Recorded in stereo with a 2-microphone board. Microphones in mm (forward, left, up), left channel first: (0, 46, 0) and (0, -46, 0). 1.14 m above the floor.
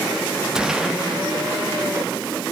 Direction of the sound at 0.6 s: 5° right (ahead or behind).